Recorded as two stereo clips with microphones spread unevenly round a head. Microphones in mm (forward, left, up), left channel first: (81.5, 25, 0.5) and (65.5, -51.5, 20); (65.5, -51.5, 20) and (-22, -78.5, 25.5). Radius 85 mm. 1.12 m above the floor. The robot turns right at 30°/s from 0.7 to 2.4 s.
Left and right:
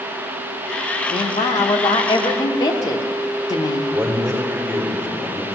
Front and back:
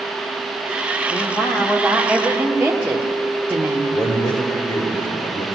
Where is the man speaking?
25° right, 4.5 m.